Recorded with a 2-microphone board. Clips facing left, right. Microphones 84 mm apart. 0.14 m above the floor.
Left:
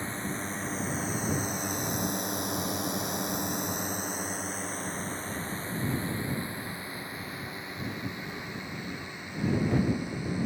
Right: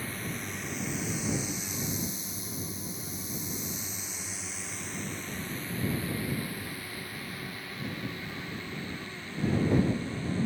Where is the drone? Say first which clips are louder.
Left 3 dB; 30° left (ahead or behind); by 10.4 s 15° left (ahead or behind).